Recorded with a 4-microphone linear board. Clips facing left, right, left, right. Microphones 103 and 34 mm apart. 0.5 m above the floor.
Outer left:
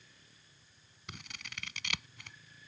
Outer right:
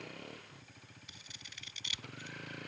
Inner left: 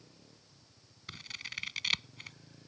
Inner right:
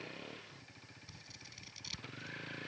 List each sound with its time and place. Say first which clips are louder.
0.0 s a vehicle: outer right 17 dB, inner right 13 dB; 80° right
1.1 s scissors: outer left 6 dB, inner left 16 dB; 75° left (ahead or behind)